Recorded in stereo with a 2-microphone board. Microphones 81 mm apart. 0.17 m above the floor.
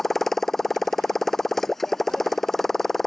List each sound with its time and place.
0.0 s a motorcycle: 5° left (ahead or behind)